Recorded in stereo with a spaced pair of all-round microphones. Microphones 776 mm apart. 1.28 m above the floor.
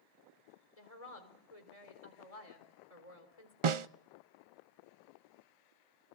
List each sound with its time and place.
0.8 s a woman speaking: 45° left (ahead or behind), 4 m
3.6 s a snare drum: 45° right (ahead or behind), 0.5 m